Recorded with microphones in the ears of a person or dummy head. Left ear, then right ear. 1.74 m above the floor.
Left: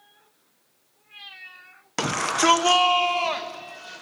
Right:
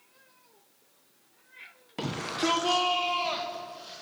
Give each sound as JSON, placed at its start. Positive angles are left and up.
{"t": 2.0, "sound": "a shout", "side_deg": 55, "distance_m": 1.3}